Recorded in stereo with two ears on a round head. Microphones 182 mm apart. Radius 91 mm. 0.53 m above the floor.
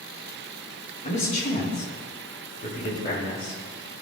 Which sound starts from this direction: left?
A man speaking, at 1.0 s.